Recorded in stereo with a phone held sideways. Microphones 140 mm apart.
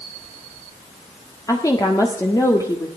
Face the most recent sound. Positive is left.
turn(degrees=25)  # may be behind; listen again after turning